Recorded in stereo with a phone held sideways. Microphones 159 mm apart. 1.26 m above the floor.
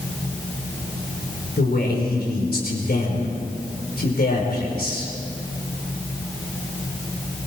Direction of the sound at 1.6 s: 80° left.